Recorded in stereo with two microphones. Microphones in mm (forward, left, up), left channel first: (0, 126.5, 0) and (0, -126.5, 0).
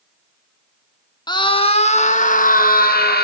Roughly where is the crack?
I don't hear a crack.